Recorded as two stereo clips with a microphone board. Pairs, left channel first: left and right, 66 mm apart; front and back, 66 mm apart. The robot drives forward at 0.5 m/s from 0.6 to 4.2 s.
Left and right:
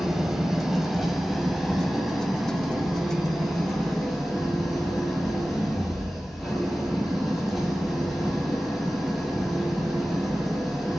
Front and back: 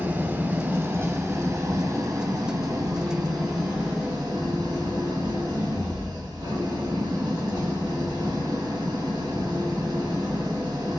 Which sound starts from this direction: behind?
An engine running, at 0.0 s.